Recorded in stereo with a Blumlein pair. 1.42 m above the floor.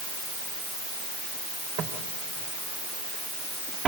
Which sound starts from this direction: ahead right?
Footsteps, at 1.8 s.